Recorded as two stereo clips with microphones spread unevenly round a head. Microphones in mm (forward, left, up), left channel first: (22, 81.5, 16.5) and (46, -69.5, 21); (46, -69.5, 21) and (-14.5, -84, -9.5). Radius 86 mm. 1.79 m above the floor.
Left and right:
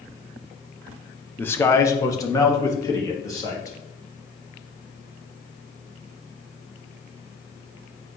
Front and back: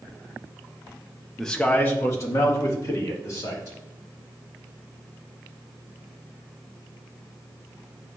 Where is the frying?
I don't hear frying.